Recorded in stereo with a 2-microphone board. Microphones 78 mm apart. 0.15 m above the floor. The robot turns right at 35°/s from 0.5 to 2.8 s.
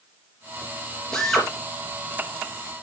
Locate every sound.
1.1 s a drill: 10° left (ahead or behind), 2.5 m; by 1.5 s centre (ahead or behind), 2.5 m